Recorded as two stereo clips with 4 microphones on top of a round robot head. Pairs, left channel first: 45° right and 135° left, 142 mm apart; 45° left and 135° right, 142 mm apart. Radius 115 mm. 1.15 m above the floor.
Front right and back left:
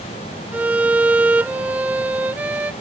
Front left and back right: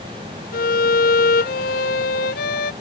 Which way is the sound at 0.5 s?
55° left.